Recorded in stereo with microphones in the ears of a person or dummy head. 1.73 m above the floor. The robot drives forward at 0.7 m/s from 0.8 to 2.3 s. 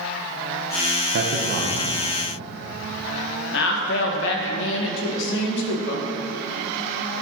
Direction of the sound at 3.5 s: 65° left (ahead or behind).